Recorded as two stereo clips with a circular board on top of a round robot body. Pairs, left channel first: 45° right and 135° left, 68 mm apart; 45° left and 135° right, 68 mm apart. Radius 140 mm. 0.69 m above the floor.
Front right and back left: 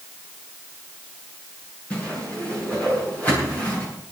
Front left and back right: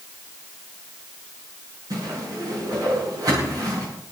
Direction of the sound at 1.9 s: 110° right.